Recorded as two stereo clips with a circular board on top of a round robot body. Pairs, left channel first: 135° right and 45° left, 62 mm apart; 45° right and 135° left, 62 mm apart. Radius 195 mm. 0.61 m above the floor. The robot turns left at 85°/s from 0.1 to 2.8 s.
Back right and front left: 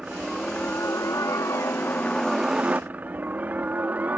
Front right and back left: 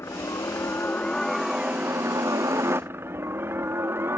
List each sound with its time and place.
0.0 s a helicopter: 30° right; by 4.2 s 100° left